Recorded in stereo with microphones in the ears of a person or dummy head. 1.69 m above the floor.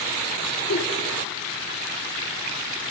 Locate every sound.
0.7 s a giggle: 60° left (ahead or behind), 3 m